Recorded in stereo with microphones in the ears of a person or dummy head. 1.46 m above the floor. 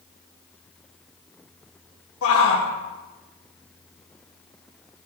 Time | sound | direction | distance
2.2 | a shout | 85° left | 2 m